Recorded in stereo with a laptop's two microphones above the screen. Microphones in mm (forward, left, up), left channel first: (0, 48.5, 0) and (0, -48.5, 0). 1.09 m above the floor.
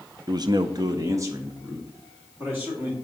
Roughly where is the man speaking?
Right.